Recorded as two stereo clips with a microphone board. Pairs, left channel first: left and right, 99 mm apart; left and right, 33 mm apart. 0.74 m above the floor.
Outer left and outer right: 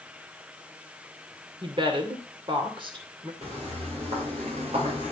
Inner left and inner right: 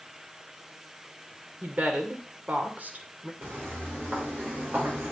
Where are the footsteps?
80° right, 8 m.